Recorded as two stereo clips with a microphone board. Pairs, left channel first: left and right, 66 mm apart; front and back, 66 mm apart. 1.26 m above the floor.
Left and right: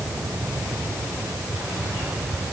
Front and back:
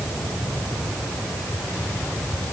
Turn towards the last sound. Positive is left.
No sound to turn to.